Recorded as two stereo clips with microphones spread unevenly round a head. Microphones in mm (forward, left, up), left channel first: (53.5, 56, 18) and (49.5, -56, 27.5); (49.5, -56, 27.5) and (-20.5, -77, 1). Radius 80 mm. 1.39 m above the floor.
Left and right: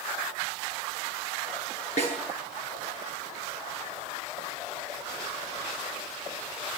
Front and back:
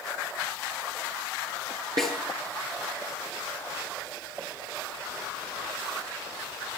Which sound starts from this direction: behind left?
A snare drum, at 2.0 s.